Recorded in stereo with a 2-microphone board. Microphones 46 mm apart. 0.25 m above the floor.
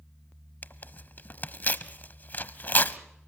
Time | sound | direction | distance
0.6 | tearing paper | 45° left (ahead or behind) | 0.7 m